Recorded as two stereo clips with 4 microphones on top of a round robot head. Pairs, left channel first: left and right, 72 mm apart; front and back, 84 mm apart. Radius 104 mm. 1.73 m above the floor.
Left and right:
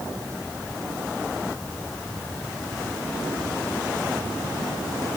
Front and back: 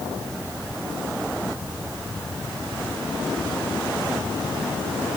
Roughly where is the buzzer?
I don't hear a buzzer.